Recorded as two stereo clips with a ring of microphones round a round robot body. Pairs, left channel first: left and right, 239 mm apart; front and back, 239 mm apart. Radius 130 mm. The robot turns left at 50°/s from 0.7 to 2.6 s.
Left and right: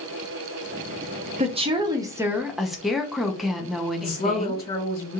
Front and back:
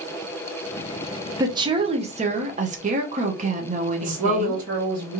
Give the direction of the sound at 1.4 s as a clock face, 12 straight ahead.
4 o'clock.